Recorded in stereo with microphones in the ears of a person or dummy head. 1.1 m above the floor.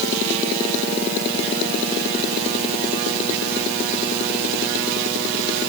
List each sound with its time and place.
Only background noise.